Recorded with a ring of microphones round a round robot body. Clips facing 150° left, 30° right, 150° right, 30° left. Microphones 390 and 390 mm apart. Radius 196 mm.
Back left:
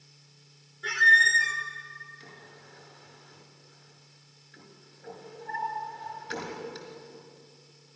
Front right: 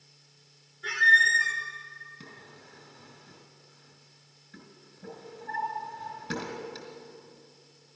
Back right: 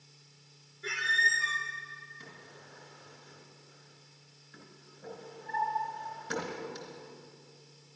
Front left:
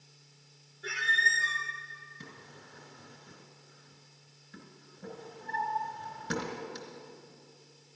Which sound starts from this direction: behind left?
A squeak, at 0.8 s.